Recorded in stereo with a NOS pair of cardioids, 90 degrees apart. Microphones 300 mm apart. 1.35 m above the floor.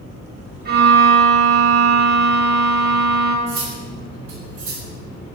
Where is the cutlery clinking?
65° right, 2.5 m.